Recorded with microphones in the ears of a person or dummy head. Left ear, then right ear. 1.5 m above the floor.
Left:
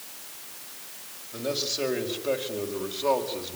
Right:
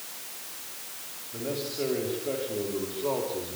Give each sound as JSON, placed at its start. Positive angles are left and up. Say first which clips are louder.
{"t": 1.3, "sound": "a man speaking", "louder": "left 4 dB", "side_deg": 55, "distance_m": 6.5}